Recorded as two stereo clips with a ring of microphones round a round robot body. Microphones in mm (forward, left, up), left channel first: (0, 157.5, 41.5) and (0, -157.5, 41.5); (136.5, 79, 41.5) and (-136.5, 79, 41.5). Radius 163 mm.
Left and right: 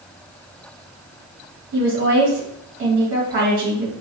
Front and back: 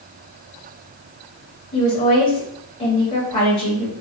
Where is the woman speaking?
60° right, 1.0 m.